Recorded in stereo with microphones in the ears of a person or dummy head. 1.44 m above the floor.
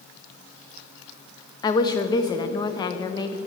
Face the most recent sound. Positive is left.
turn(degrees=25)  # may be behind; listen again after turning